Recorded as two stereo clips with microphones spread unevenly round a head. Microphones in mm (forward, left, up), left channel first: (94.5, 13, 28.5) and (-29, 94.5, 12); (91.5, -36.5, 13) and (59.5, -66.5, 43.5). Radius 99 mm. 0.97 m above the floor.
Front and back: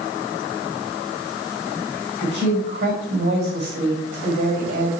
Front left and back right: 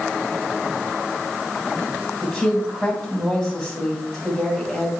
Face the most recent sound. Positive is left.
turn(degrees=150)